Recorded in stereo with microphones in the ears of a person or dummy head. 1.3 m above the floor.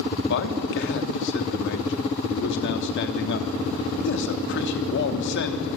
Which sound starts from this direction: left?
A man speaking, at 0.3 s.